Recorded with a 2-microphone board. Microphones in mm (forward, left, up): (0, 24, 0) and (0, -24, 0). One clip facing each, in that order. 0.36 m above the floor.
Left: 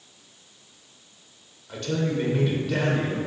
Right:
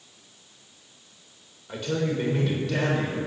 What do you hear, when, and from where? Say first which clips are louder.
1.7 s a man speaking: even; 15° right (ahead or behind), 1.1 m; by 3.2 s 20° left (ahead or behind), 1.2 m